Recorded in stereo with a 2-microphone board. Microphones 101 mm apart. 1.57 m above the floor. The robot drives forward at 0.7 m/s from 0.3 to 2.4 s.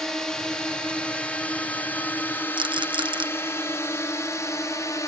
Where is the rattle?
55° right (ahead or behind).